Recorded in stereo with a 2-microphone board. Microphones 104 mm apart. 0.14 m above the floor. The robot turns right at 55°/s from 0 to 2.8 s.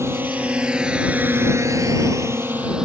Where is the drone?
25° right (ahead or behind); by 2.9 s 10° right (ahead or behind).